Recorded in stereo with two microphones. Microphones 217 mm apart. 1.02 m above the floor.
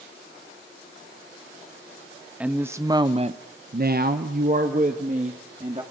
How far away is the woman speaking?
About 1.4 m.